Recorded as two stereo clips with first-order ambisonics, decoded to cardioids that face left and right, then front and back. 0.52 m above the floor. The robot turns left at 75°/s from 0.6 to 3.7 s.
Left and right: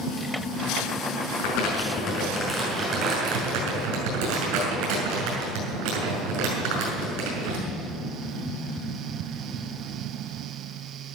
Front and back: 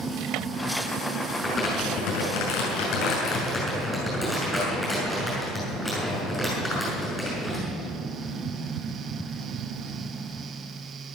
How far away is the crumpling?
About 6.5 m.